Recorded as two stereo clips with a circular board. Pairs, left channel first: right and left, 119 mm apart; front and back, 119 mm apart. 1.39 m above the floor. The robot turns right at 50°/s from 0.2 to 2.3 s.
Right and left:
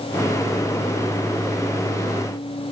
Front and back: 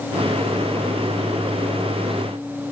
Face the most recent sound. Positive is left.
No sound to turn to.